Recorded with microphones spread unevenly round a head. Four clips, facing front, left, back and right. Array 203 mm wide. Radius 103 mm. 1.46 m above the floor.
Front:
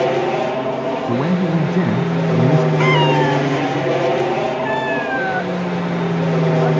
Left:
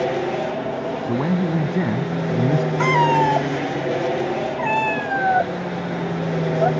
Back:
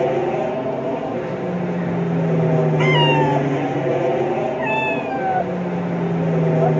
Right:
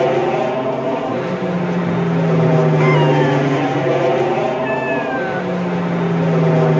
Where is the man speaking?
25° left.